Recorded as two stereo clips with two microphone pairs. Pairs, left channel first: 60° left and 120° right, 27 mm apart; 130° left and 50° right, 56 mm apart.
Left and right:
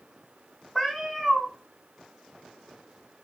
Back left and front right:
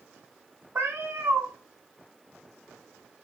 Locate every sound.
0.8 s a cat meowing: 30° right, 0.5 m